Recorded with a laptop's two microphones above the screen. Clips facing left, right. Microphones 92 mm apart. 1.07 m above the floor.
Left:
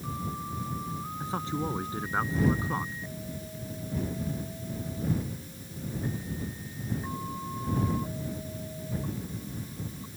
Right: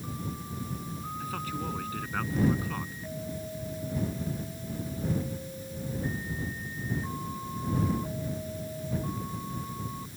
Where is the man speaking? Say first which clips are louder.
Left 4 dB; 25° left (ahead or behind).